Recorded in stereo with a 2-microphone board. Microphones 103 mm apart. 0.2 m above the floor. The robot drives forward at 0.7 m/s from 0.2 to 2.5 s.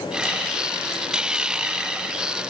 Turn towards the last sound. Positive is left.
No sound to turn to.